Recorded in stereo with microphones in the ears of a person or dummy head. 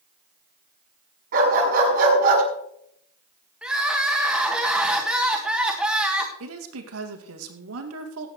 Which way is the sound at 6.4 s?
75° right (ahead or behind).